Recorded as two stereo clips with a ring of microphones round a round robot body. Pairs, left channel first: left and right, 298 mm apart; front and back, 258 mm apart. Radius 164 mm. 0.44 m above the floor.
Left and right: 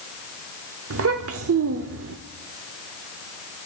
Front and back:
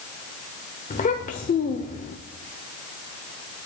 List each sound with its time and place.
0.9 s a child speaking: 55° right, 0.7 m